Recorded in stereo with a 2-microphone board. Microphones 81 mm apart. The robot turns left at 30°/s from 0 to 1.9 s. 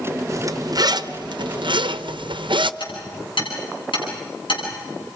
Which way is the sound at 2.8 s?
80° left.